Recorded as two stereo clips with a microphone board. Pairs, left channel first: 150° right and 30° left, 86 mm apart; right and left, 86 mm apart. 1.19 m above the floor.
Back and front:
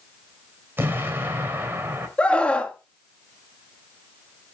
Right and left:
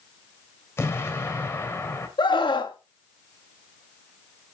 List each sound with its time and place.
0.8 s an explosion: 30° right, 3 m
2.2 s a scream: 75° right, 1.7 m